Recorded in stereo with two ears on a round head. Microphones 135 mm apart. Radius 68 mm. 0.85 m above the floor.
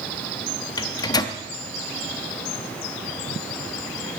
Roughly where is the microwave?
Left.